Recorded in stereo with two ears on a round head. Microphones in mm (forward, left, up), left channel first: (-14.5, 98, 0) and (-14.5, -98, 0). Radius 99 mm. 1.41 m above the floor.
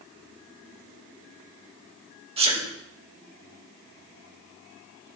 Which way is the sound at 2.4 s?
25° right (ahead or behind).